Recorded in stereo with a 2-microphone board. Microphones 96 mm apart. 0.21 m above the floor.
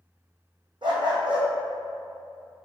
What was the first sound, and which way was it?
A dog barking, 55° right (ahead or behind).